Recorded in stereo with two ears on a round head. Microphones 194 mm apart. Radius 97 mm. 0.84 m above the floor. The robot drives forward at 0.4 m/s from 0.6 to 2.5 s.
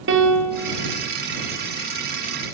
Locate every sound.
0.1 s a piano: 55° right (ahead or behind), 1.3 m